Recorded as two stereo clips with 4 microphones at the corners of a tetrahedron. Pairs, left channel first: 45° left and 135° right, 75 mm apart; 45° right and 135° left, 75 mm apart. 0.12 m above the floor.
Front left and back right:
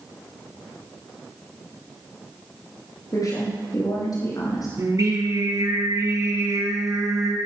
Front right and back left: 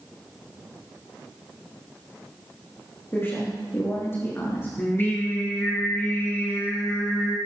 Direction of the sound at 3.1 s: 15° left.